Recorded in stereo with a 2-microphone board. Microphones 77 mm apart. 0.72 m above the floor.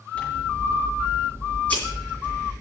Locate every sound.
0.1 s scissors: 20° left (ahead or behind), 7 m